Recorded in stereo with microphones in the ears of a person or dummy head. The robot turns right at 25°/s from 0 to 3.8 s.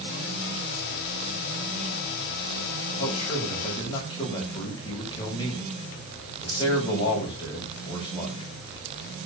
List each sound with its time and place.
3.0 s a man speaking: 40° left (ahead or behind), 9 m; by 8.5 s 20° left (ahead or behind), 9 m